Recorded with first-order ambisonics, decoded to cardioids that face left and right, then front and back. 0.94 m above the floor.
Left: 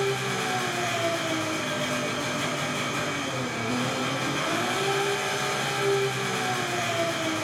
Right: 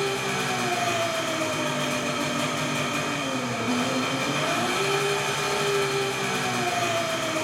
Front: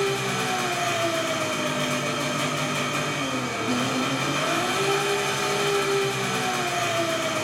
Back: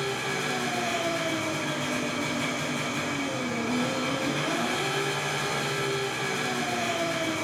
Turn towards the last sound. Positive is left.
turn(degrees=-10)